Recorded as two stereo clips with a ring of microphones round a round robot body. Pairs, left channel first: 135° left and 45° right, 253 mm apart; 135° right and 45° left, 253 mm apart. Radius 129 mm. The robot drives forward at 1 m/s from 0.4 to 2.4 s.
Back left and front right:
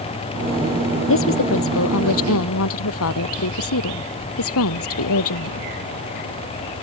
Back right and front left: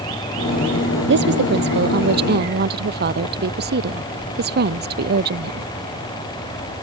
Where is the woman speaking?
95° left; by 5.7 s 100° left.